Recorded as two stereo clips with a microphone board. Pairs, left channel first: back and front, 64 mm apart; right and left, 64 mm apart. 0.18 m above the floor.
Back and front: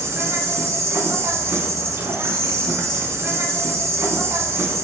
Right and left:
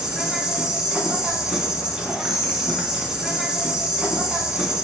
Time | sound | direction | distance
0.0 | an insect | 15° left | 0.7 m